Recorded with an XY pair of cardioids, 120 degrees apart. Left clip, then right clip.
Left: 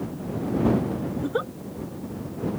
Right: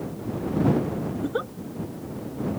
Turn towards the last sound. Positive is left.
turn(degrees=10)